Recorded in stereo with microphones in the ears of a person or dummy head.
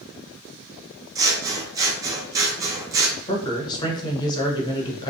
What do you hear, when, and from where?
1.1 s scissors: 15° right (ahead or behind), 0.5 m
3.3 s a man speaking: 25° left (ahead or behind), 0.7 m